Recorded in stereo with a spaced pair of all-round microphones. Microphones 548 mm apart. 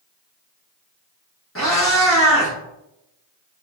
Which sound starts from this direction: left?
A cat meowing, at 1.6 s.